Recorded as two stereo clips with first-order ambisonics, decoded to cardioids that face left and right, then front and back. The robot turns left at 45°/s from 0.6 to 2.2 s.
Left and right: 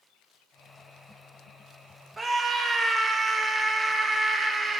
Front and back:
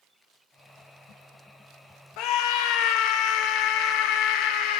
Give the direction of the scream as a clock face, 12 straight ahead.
12 o'clock.